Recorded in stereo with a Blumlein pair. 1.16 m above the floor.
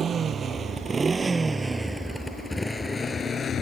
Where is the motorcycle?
20° right; by 3.6 s 25° left.